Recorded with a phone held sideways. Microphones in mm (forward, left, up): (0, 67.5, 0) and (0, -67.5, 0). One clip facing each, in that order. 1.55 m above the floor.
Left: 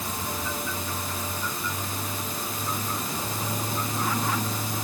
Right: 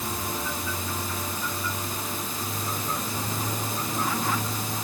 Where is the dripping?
I don't hear dripping.